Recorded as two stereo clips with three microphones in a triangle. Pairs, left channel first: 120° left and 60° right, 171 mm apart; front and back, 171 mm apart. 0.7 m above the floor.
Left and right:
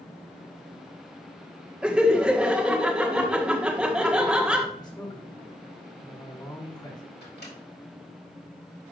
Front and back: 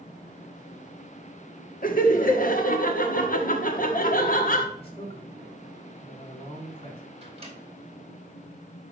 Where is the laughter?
25° left, 1.3 m.